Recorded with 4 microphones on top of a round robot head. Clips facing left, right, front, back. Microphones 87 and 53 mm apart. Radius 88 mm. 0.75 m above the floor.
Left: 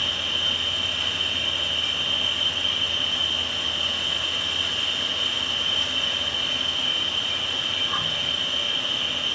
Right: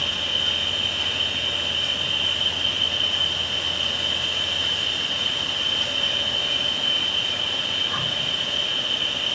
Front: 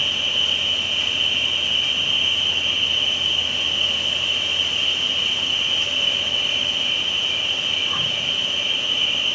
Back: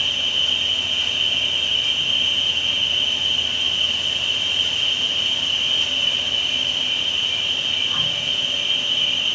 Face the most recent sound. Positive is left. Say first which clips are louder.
# right 1 dB, even
turn(degrees=45)